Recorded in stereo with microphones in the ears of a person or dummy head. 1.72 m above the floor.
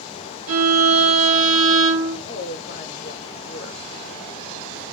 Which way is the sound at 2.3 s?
45° left (ahead or behind).